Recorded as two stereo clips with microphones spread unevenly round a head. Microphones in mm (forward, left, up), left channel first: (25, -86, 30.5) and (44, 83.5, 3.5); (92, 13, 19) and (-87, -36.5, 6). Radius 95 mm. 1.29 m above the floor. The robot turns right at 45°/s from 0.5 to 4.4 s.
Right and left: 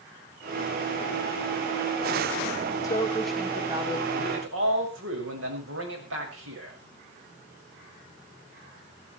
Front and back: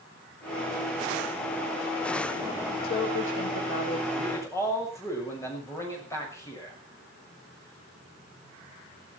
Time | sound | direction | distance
2.8 | a woman speaking | 25° right | 3.5 m
4.2 | a man speaking | 80° left | 6.5 m